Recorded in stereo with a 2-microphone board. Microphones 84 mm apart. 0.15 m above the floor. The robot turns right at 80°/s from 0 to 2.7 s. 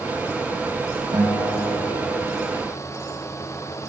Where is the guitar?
55° right, 5.5 m; by 2.6 s 60° left, 5.5 m.